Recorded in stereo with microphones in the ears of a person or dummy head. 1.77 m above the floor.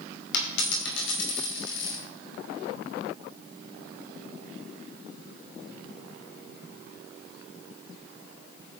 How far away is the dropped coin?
About 3.5 m.